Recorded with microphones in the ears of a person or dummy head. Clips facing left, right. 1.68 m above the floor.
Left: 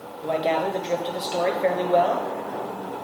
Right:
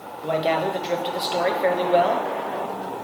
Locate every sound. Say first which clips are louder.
0.2 s a man speaking: right 1 dB; 5° right (ahead or behind), 1.5 m